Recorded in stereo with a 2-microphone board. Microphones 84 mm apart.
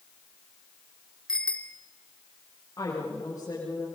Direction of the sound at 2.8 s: 40° left (ahead or behind).